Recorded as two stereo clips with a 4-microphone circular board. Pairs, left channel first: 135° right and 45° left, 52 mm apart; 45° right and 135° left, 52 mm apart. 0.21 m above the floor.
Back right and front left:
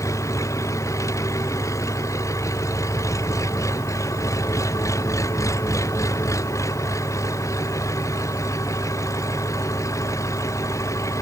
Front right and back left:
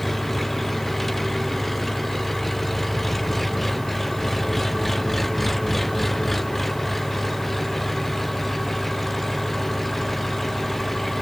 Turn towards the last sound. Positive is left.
turn(degrees=-135)